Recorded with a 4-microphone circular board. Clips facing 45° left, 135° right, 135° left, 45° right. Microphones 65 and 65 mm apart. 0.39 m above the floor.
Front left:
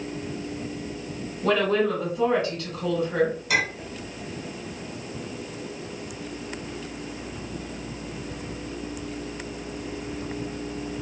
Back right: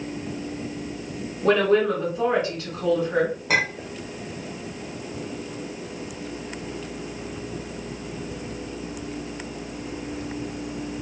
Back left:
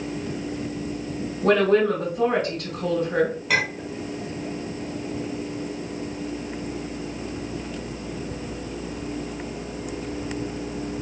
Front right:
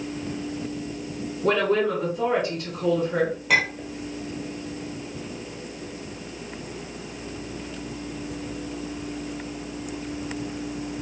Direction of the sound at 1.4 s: 160° left.